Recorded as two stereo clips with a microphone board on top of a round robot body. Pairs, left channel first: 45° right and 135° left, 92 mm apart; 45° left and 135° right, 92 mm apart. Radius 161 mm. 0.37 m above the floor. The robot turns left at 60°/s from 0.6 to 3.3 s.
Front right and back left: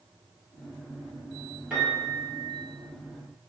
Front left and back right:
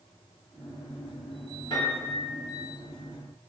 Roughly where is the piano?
Ahead left.